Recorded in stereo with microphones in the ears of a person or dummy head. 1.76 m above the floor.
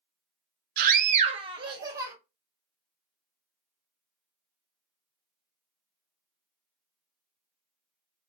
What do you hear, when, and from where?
0.8 s a scream: 55° right (ahead or behind), 0.5 m; by 2.1 s 20° right (ahead or behind), 1.0 m